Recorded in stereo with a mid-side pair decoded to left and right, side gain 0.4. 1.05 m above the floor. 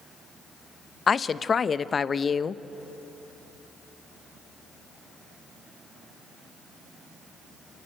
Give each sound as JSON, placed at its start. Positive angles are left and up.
{"t": 1.1, "sound": "a woman speaking", "azimuth_deg": 45, "distance_m": 0.7}